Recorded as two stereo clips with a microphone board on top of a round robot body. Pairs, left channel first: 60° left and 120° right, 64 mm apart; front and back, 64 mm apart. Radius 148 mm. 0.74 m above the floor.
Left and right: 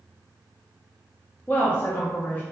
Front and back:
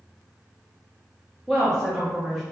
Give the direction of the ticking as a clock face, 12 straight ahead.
No ticking in this recording.